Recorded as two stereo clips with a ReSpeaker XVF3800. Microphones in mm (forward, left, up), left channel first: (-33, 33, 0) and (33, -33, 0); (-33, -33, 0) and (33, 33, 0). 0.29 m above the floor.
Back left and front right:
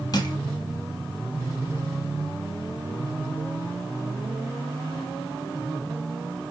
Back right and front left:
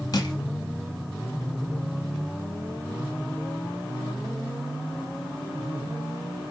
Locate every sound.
0.1 s crushing: straight behind, 0.8 m